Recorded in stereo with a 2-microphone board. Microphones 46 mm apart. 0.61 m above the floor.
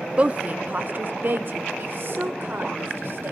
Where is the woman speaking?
30° right (ahead or behind), 0.6 m; by 3.3 s 55° right (ahead or behind), 2 m.